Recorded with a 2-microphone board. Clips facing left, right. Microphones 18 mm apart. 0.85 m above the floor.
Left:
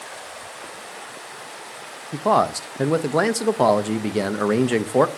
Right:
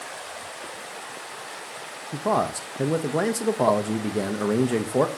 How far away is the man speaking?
About 0.5 m.